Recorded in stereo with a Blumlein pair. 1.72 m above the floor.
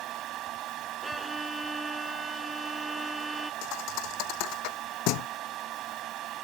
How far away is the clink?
I don't hear a clink.